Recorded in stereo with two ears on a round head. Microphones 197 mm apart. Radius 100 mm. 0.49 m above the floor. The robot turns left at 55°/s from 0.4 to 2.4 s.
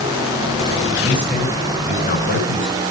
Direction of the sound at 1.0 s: 165° right.